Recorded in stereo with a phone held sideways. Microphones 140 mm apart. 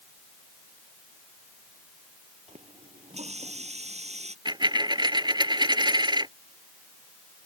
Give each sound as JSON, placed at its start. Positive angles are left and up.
{"t": 2.5, "sound": "a running tap", "side_deg": -50}
{"t": 4.5, "sound": "a dropped coin", "side_deg": -30}